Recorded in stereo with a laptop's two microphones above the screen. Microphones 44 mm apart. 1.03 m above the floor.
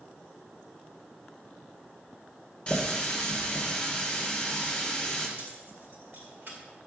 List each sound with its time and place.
2.7 s a running tap: 25° left (ahead or behind), 2 m
5.4 s keys jangling: 50° right (ahead or behind), 2.5 m